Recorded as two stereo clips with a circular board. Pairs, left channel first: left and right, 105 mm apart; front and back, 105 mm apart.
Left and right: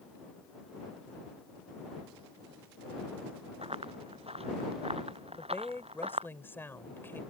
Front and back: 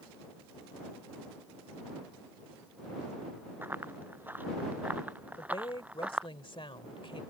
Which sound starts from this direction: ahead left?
A woman speaking, at 5.4 s.